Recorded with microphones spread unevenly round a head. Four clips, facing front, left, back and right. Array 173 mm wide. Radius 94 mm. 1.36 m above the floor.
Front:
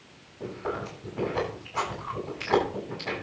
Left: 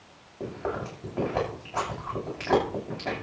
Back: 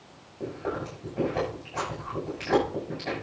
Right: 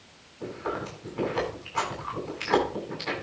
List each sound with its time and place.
0.4 s chewing: 115° left, 9 m